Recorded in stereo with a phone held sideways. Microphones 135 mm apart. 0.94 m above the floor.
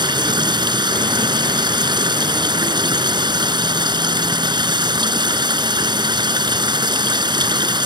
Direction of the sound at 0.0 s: 30° right (ahead or behind).